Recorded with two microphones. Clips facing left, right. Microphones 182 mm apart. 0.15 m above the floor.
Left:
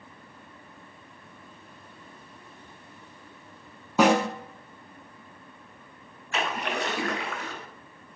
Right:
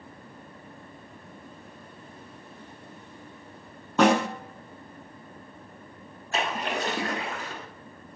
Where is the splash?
35° right (ahead or behind), 0.6 m.